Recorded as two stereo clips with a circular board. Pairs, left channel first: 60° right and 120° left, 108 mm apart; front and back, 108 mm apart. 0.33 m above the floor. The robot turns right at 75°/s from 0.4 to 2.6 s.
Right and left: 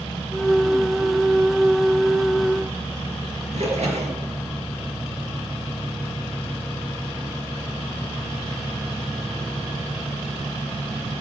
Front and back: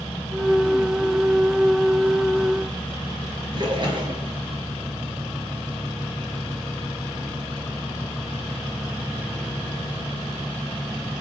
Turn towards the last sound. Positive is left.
turn(degrees=135)